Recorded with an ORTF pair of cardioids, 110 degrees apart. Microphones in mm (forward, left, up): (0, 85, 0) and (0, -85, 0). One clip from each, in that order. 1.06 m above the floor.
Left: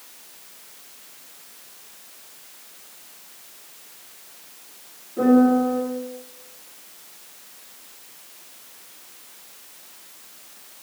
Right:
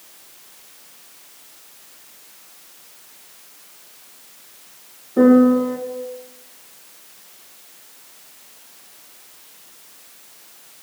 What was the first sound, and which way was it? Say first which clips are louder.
A piano: right 4 dB; 70° right.